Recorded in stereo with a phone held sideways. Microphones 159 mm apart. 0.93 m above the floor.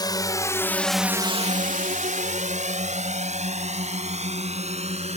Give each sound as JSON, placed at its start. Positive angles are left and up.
{"t": 0.0, "sound": "a drone", "side_deg": 25}